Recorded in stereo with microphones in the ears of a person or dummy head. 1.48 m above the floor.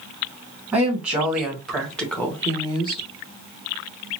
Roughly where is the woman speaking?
Centre.